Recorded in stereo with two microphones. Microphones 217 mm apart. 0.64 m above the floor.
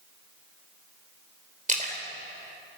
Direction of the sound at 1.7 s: 35° right (ahead or behind).